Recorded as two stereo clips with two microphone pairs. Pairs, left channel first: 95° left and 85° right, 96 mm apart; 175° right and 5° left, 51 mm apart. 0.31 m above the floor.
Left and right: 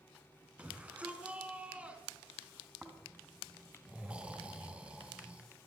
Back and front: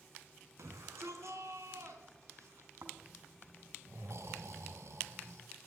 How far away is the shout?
About 4 m.